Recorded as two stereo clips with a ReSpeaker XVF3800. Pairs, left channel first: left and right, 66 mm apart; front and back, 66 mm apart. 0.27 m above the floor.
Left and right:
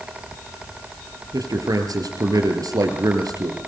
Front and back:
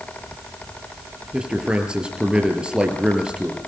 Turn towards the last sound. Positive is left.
turn(degrees=-105)